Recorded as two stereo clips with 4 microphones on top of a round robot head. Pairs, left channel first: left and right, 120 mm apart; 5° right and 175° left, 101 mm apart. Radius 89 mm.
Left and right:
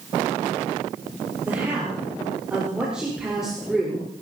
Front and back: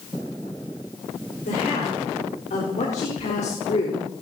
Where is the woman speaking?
10° right, 5 m; by 4.2 s straight ahead, 4 m.